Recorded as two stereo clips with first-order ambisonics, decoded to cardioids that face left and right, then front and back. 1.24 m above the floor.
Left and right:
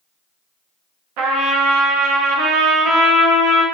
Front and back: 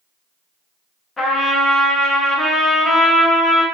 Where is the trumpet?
75° right, 0.8 m.